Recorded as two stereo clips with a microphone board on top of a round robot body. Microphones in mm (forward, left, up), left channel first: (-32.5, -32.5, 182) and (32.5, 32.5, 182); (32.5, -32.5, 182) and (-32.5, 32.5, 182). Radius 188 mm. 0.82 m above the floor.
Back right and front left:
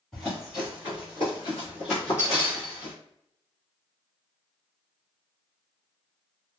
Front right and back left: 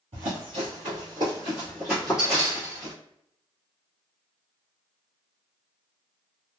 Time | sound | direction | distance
0.1 | running footsteps | 145° left | 1.2 m